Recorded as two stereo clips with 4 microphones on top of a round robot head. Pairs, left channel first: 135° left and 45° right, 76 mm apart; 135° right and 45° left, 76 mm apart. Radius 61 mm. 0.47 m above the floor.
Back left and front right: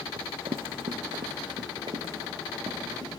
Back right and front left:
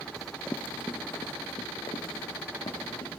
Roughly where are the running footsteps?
Ahead right.